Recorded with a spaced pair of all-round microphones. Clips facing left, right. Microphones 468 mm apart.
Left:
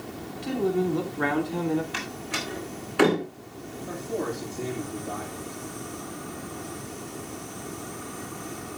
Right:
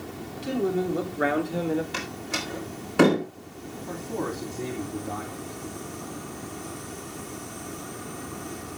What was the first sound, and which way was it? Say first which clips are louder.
A man speaking: even; 15° left (ahead or behind).